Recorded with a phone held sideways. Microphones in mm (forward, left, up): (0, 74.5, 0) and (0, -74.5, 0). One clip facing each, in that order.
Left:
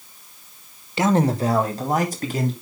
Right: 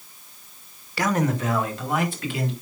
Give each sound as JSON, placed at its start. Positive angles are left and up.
{"t": 1.0, "sound": "a man speaking", "side_deg": 25, "distance_m": 0.9}